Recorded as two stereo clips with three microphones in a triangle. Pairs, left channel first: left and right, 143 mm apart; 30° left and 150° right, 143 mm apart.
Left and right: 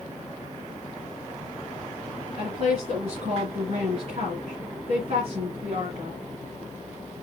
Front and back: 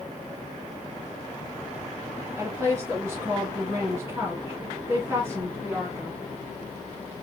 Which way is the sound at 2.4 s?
85° right.